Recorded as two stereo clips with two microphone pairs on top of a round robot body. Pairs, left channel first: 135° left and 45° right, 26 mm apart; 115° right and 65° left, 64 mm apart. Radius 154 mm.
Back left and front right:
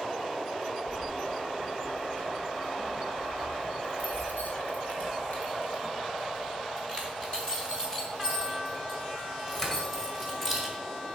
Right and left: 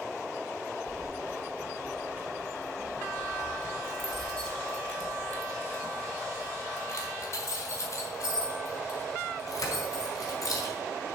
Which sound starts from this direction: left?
Keys jangling, at 0.9 s.